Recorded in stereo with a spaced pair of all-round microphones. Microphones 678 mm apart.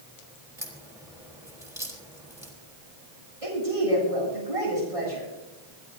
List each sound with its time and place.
0.6 s a crack: 5° right (ahead or behind), 3.5 m
3.4 s a woman speaking: 55° right (ahead or behind), 8.5 m